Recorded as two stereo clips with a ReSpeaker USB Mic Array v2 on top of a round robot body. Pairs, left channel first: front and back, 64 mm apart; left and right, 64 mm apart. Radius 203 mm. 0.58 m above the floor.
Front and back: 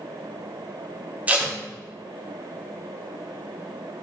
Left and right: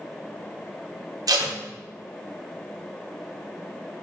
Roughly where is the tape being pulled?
Behind right.